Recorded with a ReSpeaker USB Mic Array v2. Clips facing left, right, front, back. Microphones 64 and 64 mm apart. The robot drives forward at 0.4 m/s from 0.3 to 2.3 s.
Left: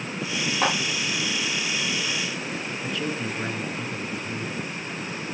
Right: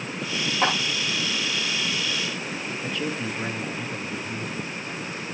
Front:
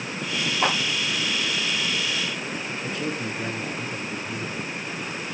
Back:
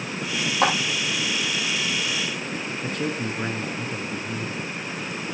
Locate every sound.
0.6 s a clap: 175° left, 8 m
2.8 s a man speaking: straight behind, 2 m